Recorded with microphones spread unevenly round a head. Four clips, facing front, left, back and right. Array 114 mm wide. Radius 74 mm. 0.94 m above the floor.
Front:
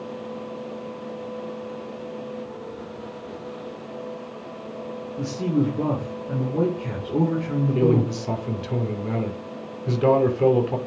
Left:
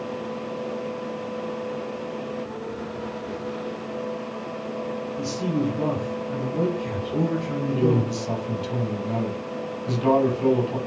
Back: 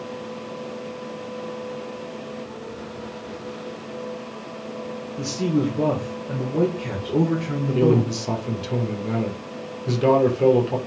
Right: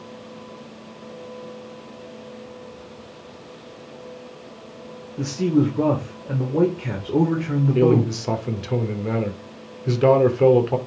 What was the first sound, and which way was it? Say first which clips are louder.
A man speaking: right 7 dB, back 1 dB; 120° right.